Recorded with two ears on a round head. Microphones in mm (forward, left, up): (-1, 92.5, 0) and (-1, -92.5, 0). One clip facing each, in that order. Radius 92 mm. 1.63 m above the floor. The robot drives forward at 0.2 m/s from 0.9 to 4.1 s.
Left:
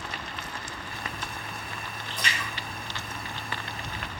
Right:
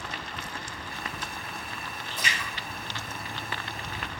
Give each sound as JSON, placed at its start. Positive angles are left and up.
{"t": 2.1, "sound": "a splash", "side_deg": -5, "distance_m": 0.8}